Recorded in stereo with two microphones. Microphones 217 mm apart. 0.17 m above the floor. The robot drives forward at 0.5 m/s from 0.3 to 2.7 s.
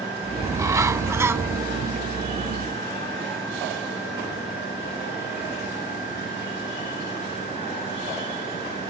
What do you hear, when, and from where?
0.4 s a bird: 15° right (ahead or behind); by 1.6 s 10° right (ahead or behind)